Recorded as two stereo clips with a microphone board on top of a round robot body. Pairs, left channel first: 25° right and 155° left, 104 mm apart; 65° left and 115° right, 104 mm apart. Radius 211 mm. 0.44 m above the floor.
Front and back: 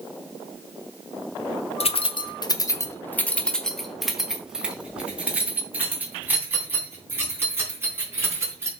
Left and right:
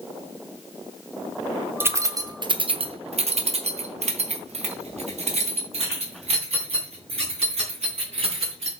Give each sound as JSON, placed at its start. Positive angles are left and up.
{"t": 1.8, "sound": "keys jangling", "azimuth_deg": -45, "distance_m": 1.0}